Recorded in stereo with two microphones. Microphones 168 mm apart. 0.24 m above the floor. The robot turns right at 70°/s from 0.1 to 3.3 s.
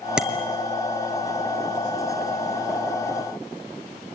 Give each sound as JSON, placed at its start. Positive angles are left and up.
{"t": 0.2, "sound": "a bicycle bell", "side_deg": -5, "distance_m": 2.5}